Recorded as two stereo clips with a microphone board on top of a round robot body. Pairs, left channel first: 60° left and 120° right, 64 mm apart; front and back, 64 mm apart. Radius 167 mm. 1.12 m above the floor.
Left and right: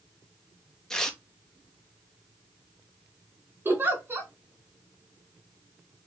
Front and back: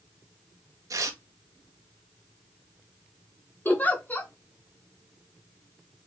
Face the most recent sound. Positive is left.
turn(degrees=-65)